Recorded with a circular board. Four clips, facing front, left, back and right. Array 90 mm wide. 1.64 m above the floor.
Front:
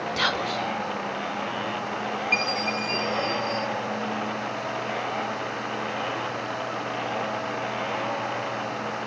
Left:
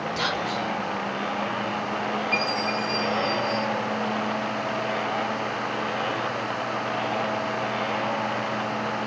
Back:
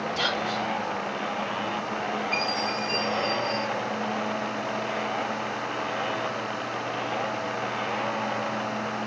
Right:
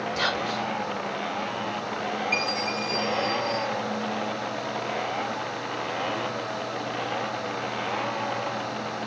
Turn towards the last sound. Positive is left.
turn(degrees=-10)